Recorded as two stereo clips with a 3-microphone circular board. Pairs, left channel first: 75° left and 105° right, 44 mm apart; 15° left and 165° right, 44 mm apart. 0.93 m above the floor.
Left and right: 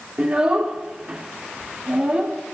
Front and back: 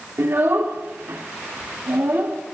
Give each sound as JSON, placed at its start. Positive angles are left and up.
{"t": 0.2, "sound": "a child speaking", "azimuth_deg": -155, "distance_m": 2.0}